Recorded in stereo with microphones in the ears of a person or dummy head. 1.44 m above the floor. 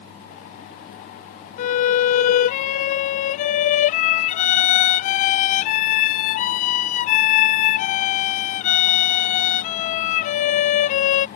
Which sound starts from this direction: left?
A violin, at 1.6 s.